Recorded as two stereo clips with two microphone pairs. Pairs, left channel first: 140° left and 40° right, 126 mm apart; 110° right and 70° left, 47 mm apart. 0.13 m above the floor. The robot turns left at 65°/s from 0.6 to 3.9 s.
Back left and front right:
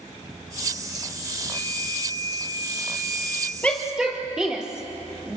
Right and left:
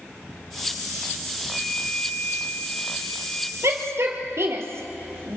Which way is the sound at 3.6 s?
65° left.